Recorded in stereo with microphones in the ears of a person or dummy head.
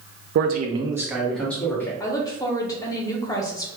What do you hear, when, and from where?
0.3 s a man speaking: 65° right (ahead or behind), 0.5 m; by 1.9 s 10° left (ahead or behind), 1.3 m
2.0 s a woman speaking: 10° left (ahead or behind), 0.7 m